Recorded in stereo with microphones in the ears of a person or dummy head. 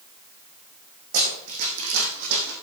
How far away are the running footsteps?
About 3.5 m.